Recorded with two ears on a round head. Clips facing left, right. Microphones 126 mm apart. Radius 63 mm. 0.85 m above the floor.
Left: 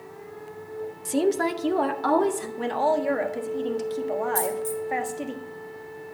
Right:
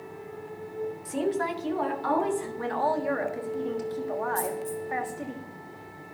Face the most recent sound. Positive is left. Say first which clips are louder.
# left 4 dB
turn(degrees=60)  # may be behind; listen again after turning